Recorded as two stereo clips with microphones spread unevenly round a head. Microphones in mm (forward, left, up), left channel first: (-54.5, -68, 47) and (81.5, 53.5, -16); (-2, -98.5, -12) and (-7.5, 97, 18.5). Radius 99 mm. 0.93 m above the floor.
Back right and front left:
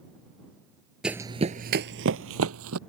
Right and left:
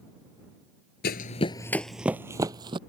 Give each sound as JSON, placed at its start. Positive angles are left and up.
{"t": 1.0, "sound": "running footsteps", "azimuth_deg": -70}